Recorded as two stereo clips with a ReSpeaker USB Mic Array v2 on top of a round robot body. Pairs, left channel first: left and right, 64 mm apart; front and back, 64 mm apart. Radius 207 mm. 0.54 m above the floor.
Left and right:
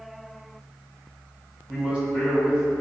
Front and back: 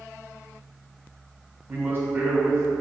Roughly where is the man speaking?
Behind right.